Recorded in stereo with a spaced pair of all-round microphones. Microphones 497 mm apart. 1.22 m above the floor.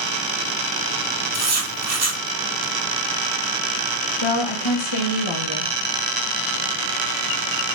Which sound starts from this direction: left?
A woman speaking, at 4.2 s.